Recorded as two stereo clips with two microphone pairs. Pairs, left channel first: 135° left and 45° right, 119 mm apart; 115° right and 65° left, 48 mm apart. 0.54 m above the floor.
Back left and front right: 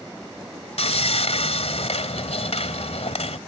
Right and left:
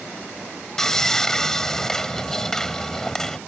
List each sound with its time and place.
0.8 s sawing: 165° left